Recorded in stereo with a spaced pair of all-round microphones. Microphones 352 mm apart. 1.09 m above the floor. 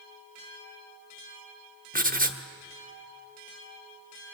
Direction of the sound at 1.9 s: 25° right (ahead or behind).